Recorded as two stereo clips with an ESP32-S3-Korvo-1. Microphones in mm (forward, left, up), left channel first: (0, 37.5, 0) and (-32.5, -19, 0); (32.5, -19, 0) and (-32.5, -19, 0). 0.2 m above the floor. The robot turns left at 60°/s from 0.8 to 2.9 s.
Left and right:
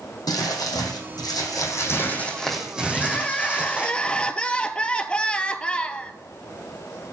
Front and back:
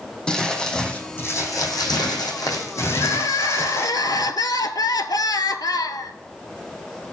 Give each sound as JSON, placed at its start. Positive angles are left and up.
{"t": 0.3, "sound": "crumpling", "azimuth_deg": 75, "distance_m": 2.5}
{"t": 2.9, "sound": "crying", "azimuth_deg": -15, "distance_m": 0.6}